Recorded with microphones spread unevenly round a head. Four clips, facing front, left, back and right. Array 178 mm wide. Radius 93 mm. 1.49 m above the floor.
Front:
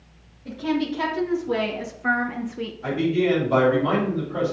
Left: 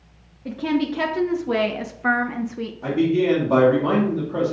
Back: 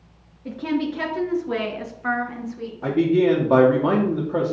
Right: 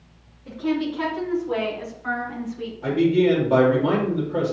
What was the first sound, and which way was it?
A woman speaking, 125° left.